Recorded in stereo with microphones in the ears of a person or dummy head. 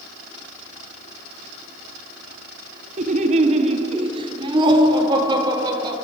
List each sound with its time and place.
3.0 s laughter: 45° right (ahead or behind), 1.7 m; by 6.0 s 25° right (ahead or behind), 4 m